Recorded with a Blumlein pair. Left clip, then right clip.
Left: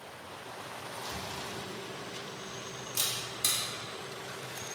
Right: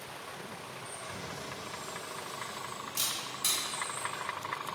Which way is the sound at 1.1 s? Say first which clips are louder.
Left 1 dB; 10° left.